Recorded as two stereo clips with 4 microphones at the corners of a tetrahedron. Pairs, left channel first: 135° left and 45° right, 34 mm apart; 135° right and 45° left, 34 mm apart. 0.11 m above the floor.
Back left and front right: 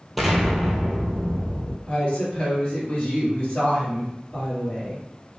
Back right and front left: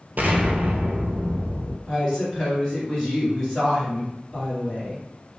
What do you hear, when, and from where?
0.2 s an explosion: 50° left, 0.6 m
1.9 s a woman speaking: 160° left, 1.9 m